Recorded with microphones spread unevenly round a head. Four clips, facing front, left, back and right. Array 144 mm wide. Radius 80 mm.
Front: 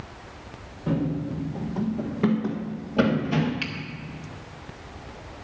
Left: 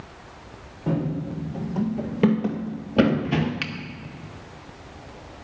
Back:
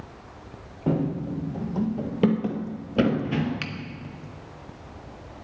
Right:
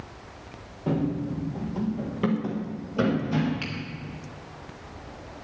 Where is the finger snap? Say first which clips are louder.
Left 2 dB, front 1 dB; 105° left, 1.1 m.